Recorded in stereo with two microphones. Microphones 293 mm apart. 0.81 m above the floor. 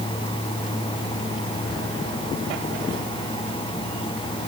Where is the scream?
I don't hear a scream.